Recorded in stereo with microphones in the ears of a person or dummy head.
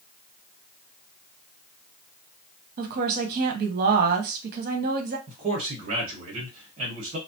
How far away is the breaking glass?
No breaking glass in this recording.